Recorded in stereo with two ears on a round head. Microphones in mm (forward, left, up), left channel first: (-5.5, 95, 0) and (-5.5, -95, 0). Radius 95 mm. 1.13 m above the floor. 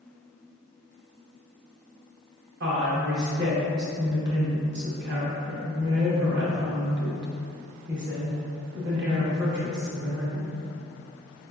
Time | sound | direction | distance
2.6 | a woman speaking | 55° right (ahead or behind) | 1.0 m